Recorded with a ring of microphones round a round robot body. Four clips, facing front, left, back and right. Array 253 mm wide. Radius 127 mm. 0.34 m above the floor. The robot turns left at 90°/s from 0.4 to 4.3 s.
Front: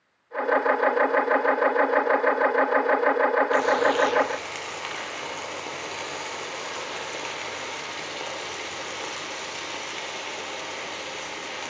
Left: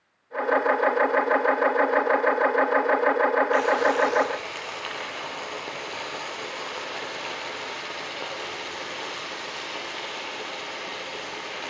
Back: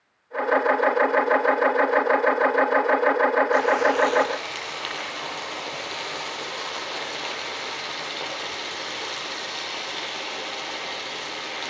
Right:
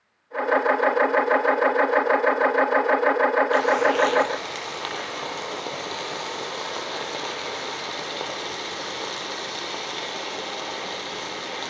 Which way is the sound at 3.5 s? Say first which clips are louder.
Right 2 dB, back 1 dB; 15° right.